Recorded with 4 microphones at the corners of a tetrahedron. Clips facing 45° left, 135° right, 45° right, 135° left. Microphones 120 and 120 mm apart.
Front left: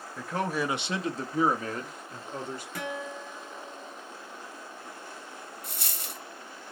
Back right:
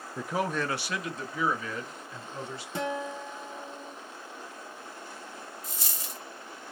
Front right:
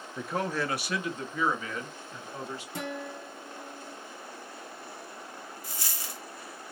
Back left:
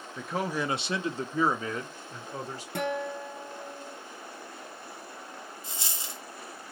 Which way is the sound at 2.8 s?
160° left.